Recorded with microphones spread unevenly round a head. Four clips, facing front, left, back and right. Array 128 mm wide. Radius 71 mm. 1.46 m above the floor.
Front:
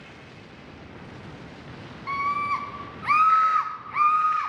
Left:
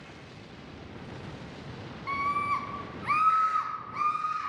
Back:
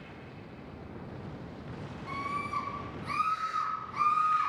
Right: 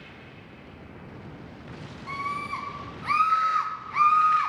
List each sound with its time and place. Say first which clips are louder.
2.1 s a scream: left 3 dB, front 10 dB; 5° left, 1.9 m; by 4.5 s 60° right, 1.1 m